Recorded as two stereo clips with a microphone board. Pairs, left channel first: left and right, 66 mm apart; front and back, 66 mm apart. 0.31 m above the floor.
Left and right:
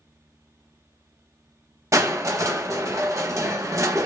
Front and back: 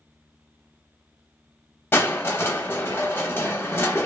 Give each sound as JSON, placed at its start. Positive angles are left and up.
{"t": 1.9, "sound": "crushing", "azimuth_deg": -55, "distance_m": 0.6}